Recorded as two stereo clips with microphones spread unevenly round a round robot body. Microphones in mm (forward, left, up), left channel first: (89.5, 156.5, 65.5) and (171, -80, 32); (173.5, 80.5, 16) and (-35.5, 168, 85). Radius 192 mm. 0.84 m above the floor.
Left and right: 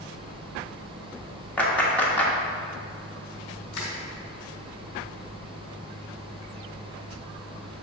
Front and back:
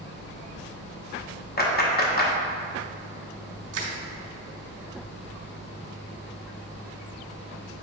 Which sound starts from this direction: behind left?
Crushing, at 3.7 s.